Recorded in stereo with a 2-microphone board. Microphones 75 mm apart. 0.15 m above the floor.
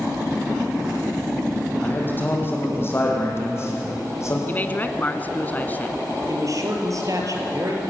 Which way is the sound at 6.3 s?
50° right (ahead or behind).